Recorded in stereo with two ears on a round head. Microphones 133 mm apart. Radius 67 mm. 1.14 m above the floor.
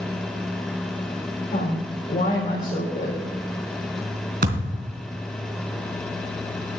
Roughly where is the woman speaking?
Left.